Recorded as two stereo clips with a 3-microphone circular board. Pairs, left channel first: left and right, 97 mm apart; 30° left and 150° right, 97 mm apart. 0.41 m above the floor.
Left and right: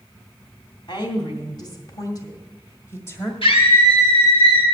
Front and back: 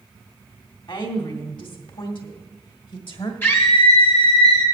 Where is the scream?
95° left, 4 m.